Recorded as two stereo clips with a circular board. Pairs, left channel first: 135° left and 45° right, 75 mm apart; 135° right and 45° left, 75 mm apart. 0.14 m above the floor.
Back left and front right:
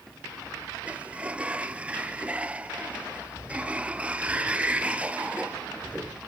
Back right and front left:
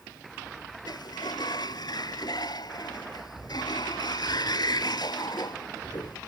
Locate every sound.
0.9 s a sliding door: 120° right, 0.5 m